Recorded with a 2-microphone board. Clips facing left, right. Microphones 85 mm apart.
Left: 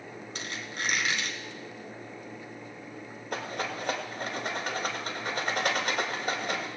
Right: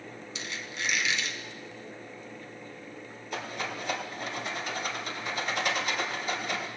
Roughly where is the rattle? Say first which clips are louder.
Left 2 dB; left.